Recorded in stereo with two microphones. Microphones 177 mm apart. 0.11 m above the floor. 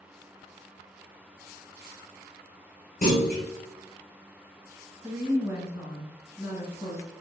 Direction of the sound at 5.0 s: 15° right (ahead or behind).